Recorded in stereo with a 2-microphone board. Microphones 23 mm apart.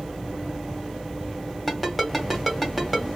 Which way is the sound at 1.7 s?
Centre (ahead or behind).